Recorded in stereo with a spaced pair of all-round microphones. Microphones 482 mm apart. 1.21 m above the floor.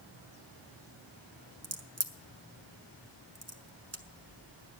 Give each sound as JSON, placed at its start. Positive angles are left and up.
{"t": 1.6, "sound": "a crack", "side_deg": -30, "distance_m": 1.3}